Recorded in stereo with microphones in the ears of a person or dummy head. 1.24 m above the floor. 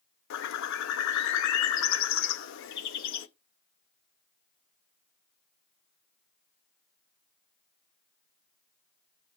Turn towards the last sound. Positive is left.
turn(degrees=65)  # may be behind; listen again after turning